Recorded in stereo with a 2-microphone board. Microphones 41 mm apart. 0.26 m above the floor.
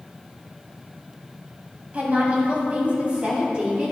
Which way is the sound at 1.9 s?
40° right (ahead or behind).